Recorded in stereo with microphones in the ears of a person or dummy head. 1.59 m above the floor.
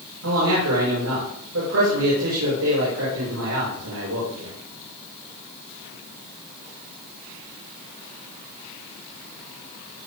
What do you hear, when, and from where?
0.2 s a man speaking: 85° right, 6.5 m